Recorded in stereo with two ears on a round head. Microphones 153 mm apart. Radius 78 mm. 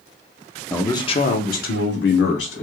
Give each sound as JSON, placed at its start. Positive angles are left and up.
{"t": 0.7, "sound": "a man speaking", "side_deg": 10, "distance_m": 0.6}